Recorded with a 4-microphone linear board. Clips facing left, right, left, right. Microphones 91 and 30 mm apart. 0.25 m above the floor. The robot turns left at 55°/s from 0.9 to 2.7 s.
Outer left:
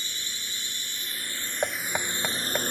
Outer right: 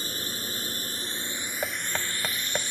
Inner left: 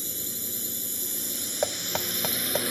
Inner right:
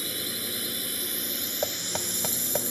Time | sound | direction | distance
0.0 | a drone | 135° right | ?
1.6 | knocking | 20° left (ahead or behind) | ?